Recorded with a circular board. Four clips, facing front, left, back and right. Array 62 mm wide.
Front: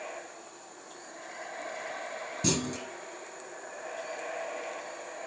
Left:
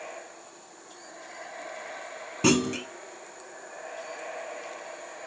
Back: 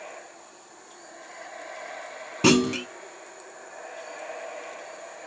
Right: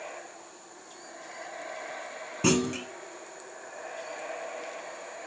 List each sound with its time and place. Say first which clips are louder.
2.4 s a clunk: left 2 dB, back 12 dB; 170° left, 0.5 m